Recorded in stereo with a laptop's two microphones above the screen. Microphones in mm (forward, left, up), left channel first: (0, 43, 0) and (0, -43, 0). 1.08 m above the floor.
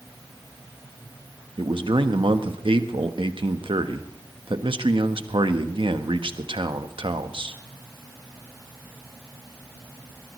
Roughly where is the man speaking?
Right.